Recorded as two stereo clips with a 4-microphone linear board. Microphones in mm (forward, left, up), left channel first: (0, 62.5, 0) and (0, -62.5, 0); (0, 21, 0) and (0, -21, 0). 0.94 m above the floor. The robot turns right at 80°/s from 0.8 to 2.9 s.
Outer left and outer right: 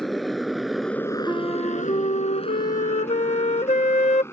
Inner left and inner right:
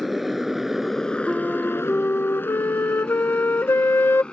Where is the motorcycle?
Centre (ahead or behind); by 4.3 s 20° left (ahead or behind).